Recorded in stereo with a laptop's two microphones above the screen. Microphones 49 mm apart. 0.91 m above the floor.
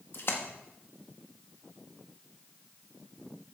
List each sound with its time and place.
0.1 s a splash: 50° left (ahead or behind), 1.4 m